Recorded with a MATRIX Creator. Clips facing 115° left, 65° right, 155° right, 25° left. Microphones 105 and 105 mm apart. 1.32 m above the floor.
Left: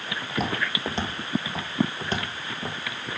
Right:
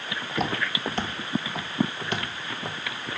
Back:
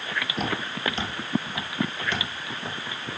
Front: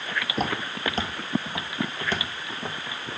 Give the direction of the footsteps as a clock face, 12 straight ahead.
11 o'clock.